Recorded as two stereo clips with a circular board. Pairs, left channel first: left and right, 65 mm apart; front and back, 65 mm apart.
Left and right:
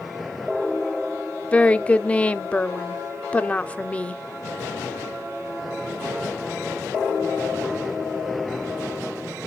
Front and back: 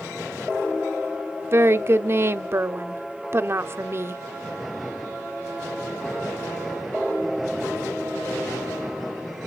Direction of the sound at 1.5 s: 150° left.